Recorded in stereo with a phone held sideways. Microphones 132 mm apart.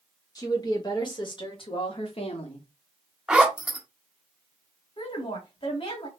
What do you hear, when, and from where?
0.3 s a woman speaking: 30° left (ahead or behind), 1.8 m; by 2.7 s 45° left (ahead or behind), 1.0 m
3.3 s a zipper: 10° right (ahead or behind), 0.9 m
5.0 s a woman speaking: 40° left (ahead or behind), 1.5 m